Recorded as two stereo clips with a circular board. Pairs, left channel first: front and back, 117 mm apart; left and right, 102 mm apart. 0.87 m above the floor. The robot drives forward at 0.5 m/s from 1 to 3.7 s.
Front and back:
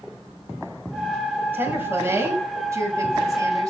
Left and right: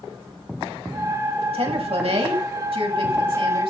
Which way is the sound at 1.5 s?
110° right.